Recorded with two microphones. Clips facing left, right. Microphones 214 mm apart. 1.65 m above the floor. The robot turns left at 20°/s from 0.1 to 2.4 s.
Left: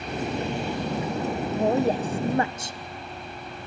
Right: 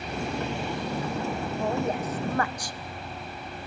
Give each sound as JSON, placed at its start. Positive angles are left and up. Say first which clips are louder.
{"t": 1.6, "sound": "a woman speaking", "louder": "left 7 dB", "side_deg": 40, "distance_m": 0.9}